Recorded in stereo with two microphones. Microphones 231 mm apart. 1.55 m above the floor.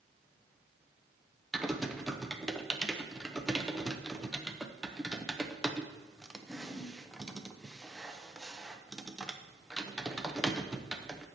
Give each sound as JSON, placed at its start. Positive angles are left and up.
{"t": 1.5, "sound": "typing on a keyboard", "side_deg": 0, "distance_m": 0.8}